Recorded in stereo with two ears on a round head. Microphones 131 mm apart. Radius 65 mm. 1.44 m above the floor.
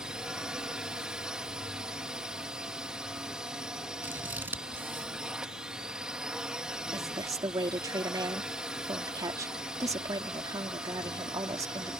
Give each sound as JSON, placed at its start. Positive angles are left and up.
{"t": 0.0, "sound": "a drone", "side_deg": -5}
{"t": 4.0, "sound": "scissors", "side_deg": -15}
{"t": 6.9, "sound": "a woman speaking", "side_deg": -20}